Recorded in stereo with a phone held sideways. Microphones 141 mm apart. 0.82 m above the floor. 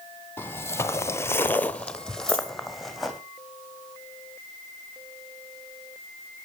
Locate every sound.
0.4 s footsteps: 15° left (ahead or behind), 1.4 m; by 3.2 s centre (ahead or behind), 2.5 m
2.3 s a dropped coin: 45° right (ahead or behind), 8.5 m